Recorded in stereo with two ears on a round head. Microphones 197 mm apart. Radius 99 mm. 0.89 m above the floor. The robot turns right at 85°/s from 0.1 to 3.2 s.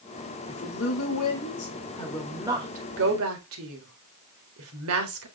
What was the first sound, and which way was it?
A woman speaking, 25° left.